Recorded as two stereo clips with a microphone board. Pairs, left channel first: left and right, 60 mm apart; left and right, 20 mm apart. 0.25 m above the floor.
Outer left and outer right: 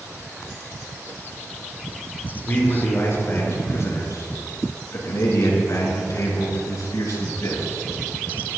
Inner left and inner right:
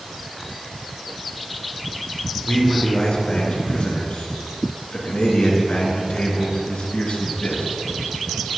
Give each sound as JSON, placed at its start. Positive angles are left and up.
{"t": 2.5, "sound": "a man speaking", "side_deg": 40, "distance_m": 3.0}